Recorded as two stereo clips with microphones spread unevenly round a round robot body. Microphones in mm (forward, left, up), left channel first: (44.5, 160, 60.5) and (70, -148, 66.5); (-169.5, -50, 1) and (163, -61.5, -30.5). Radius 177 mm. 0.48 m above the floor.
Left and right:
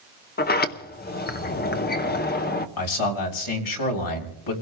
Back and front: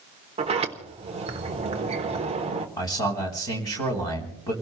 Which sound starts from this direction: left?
A man speaking, at 2.8 s.